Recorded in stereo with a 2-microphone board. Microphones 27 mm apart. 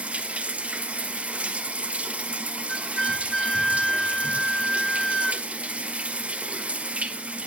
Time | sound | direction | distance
0.0 | running water | 55° right (ahead or behind) | 1.6 m
2.7 | a flute | 20° left (ahead or behind) | 1.0 m